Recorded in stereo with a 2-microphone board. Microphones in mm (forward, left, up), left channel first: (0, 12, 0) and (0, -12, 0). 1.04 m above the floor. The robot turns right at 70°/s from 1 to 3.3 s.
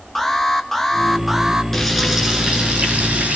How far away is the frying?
About 6 m.